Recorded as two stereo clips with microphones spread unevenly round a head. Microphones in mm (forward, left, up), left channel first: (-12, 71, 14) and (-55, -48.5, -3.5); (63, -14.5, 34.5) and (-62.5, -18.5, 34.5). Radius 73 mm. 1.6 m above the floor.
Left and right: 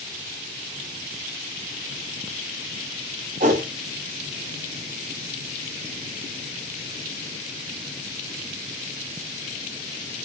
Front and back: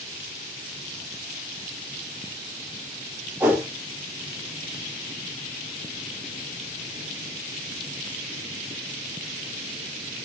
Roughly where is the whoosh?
Right.